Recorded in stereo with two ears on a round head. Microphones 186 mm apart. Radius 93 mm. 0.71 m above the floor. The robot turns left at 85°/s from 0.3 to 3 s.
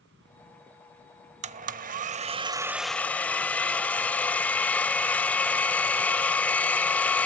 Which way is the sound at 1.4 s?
60° right.